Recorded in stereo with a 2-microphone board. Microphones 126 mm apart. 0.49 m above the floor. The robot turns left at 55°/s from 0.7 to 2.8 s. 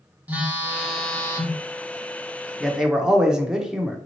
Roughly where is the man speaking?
Centre.